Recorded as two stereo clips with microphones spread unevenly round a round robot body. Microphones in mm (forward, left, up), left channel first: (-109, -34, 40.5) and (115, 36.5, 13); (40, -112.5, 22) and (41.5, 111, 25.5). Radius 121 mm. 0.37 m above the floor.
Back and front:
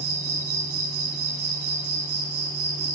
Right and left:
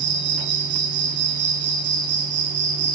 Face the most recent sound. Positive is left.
turn(degrees=50)